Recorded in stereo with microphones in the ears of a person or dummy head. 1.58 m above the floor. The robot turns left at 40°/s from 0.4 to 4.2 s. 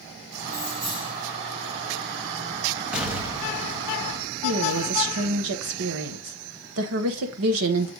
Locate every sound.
0.5 s keys jangling: 5° right (ahead or behind), 6 m; by 1.1 s 35° right (ahead or behind), 6 m
2.9 s an explosion: 5° right, 1.2 m; by 4.2 s 55° right, 1.2 m
4.4 s a woman speaking: 65° right (ahead or behind), 1.2 m